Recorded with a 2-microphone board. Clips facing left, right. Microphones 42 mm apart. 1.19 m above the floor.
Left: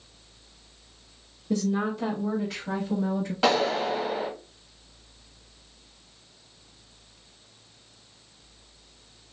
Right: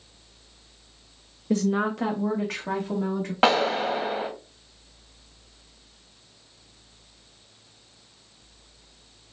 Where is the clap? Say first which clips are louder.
Right 3 dB; 40° right (ahead or behind), 1.4 m.